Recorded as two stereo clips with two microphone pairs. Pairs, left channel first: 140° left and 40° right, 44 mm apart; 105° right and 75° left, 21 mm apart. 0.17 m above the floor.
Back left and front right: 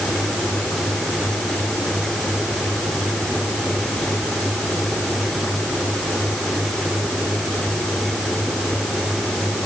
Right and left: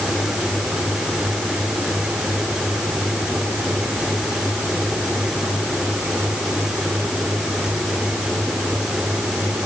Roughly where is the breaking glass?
No breaking glass in this recording.